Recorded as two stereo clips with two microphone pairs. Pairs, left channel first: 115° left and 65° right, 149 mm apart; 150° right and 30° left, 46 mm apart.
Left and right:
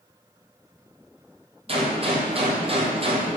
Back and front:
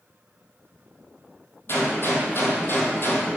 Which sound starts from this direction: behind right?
A gunshot, at 1.7 s.